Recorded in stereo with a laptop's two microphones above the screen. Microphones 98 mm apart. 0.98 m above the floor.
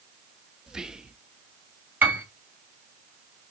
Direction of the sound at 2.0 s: 20° right (ahead or behind).